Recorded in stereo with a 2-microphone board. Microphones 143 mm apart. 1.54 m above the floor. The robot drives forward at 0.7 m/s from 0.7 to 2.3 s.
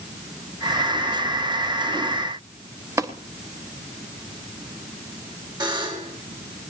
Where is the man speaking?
No man speaking in this recording.